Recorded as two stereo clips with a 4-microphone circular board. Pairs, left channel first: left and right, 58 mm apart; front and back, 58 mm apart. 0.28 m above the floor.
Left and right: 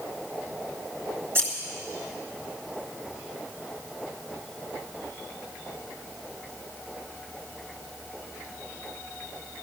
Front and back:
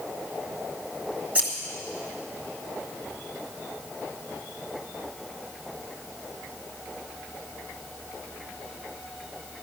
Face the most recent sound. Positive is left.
turn(degrees=-120)